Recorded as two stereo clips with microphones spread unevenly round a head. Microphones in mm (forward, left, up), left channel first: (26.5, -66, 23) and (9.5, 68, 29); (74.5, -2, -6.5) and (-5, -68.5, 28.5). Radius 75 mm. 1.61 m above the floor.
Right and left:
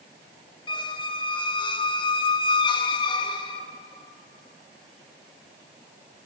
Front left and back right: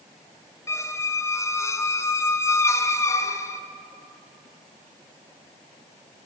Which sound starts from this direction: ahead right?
A squeak, at 0.7 s.